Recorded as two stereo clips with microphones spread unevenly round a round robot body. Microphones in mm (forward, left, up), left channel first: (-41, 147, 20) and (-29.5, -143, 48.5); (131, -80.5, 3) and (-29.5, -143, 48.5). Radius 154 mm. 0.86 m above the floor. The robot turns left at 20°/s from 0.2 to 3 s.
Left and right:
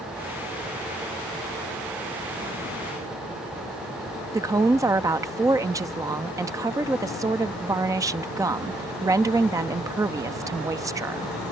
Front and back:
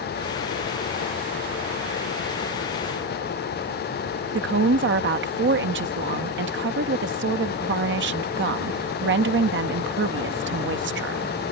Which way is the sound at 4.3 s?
170° right.